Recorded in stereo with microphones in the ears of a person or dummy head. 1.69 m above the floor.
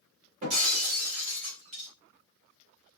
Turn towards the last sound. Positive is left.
turn(degrees=-35)  # may be behind; listen again after turning